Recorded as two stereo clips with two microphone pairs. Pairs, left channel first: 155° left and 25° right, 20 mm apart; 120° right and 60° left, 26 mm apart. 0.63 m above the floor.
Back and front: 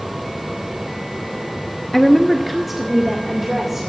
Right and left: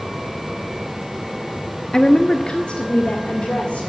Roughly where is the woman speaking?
Behind right.